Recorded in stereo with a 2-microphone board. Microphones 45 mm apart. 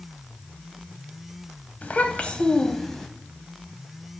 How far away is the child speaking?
About 0.7 m.